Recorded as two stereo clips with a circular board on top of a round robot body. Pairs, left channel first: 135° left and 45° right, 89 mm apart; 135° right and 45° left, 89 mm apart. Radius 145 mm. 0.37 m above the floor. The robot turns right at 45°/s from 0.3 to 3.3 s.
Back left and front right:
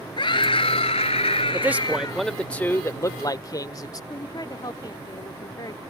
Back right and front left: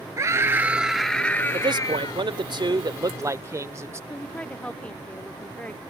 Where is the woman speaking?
155° left.